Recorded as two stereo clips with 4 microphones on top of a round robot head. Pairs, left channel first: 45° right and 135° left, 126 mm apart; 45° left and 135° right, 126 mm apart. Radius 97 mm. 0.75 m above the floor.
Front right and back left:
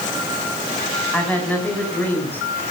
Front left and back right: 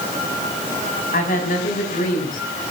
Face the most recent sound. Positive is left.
turn(degrees=30)